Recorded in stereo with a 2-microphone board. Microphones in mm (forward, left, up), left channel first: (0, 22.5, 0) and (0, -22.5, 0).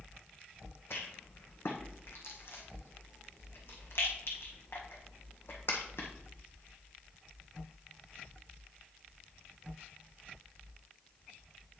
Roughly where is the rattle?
Left.